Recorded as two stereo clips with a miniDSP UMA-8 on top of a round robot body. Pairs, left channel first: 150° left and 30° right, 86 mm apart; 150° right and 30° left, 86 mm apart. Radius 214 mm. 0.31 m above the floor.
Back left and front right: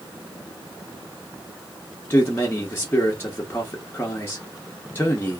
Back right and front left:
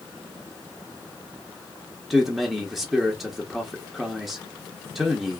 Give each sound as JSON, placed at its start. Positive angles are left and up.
{"t": 2.1, "sound": "a man speaking", "azimuth_deg": 115, "distance_m": 1.1}